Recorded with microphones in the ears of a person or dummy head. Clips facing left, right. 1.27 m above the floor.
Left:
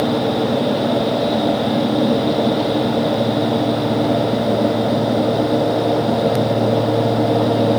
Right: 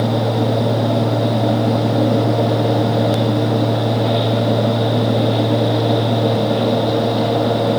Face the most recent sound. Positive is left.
No sound to turn to.